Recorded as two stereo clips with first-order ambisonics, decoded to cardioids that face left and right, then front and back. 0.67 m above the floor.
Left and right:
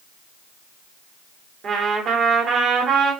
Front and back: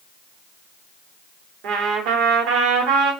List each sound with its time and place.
1.6 s a trumpet: 150° right, 1.0 m